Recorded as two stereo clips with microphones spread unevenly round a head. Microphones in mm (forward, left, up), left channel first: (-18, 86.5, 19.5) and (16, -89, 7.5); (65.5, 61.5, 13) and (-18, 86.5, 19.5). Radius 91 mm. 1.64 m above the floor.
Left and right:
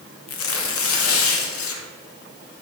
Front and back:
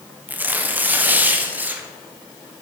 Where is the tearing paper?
90° left, 1.5 m.